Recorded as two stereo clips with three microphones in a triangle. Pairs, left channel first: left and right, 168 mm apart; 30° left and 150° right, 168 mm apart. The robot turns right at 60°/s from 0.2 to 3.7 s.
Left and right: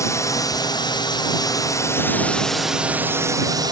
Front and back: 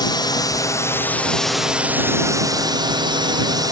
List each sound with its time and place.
0.0 s a drone: 45° left; by 3.7 s 115° right